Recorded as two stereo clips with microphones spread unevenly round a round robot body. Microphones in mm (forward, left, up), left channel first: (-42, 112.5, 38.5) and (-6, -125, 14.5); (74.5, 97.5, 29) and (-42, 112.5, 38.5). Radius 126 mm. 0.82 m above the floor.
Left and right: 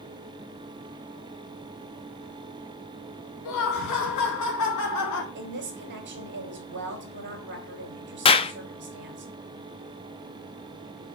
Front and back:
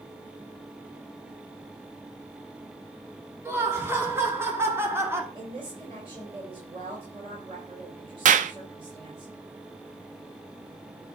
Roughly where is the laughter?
Left.